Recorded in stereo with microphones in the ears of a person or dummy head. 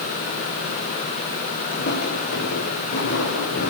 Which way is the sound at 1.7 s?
40° left (ahead or behind).